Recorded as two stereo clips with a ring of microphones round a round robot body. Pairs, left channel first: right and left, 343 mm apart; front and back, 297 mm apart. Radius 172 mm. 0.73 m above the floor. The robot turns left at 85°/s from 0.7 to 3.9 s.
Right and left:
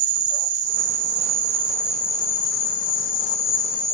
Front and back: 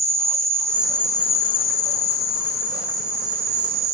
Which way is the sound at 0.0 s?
105° left.